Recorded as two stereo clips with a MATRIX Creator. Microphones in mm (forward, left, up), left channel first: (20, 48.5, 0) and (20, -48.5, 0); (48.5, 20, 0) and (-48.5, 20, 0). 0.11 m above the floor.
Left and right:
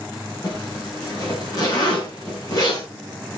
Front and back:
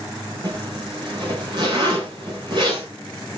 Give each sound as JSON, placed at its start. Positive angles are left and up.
{"t": 0.4, "sound": "a zipper", "azimuth_deg": 140, "distance_m": 9.0}